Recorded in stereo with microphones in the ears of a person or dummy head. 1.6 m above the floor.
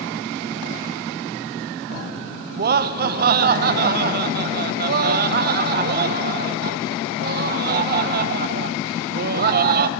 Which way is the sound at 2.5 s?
45° right (ahead or behind).